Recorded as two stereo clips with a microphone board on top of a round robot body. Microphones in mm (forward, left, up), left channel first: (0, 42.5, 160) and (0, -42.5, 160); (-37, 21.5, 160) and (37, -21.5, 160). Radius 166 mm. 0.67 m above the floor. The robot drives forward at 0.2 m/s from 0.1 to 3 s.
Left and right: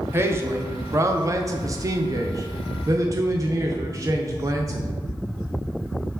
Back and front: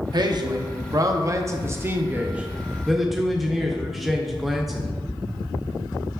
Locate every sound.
0.1 s a man speaking: 35° right, 0.7 m; by 4.9 s 120° right, 0.6 m